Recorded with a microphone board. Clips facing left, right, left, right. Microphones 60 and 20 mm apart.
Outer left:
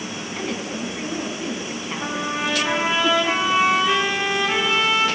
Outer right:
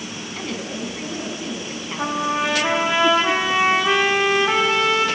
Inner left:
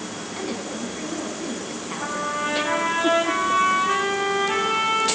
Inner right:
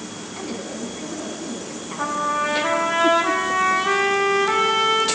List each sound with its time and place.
0.3 s a woman speaking: 5° left (ahead or behind), 1.3 m
2.0 s a trumpet: 70° right (ahead or behind), 2.5 m